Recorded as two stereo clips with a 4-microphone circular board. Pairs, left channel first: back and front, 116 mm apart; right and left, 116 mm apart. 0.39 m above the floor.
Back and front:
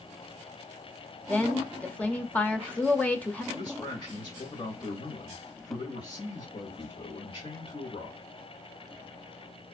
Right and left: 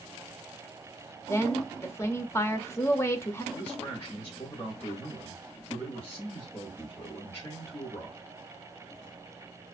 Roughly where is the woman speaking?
Behind right.